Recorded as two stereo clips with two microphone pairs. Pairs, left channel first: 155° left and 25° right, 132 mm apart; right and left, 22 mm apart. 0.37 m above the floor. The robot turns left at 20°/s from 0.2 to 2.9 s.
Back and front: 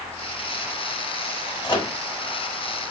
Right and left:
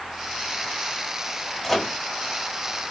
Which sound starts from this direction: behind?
A microwave, at 1.6 s.